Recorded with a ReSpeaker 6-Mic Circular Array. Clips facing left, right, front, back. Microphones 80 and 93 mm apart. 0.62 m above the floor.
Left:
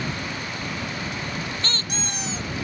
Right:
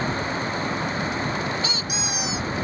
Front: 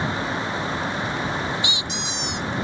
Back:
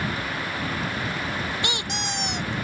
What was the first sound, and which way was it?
A squeak, 170° right.